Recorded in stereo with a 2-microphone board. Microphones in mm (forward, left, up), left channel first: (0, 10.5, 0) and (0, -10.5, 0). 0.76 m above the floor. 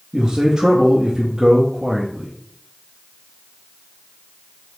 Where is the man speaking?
30° right (ahead or behind), 0.6 m.